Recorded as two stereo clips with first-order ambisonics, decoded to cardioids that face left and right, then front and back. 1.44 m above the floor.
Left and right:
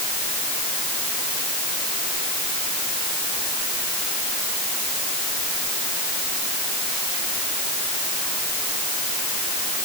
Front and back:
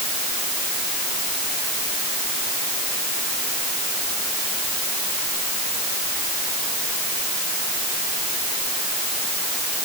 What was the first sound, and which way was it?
Only background noise.